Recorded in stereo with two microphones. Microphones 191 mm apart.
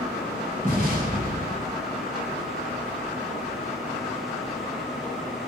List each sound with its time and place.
0.6 s an explosion: 50° right (ahead or behind), 1.7 m